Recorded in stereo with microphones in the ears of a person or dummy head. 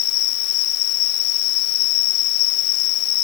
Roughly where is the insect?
Left.